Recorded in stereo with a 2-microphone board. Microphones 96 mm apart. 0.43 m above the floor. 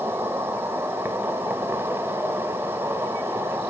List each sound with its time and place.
0.0 s an insect: 25° right (ahead or behind), 0.9 m